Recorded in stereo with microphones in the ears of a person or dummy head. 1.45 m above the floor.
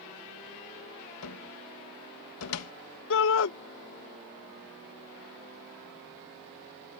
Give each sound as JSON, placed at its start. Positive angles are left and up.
{"t": 1.2, "sound": "a cupboard door", "side_deg": 85}
{"t": 3.1, "sound": "a shout", "side_deg": 65}